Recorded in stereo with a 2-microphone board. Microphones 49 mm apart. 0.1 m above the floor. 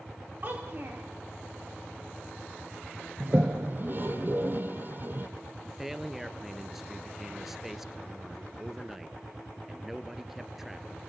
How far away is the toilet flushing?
About 3 m.